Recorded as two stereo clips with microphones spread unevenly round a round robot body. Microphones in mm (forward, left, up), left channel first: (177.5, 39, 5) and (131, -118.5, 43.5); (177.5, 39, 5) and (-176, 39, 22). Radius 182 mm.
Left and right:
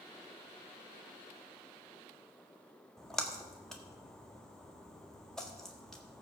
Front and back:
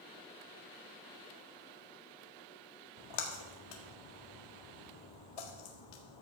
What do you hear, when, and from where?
3.0 s a splash: 10° right, 1.6 m